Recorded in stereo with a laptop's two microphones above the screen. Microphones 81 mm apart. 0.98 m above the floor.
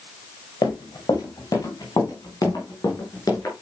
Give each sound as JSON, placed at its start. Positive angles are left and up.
{"t": 0.6, "sound": "running footsteps", "side_deg": 55, "distance_m": 3.0}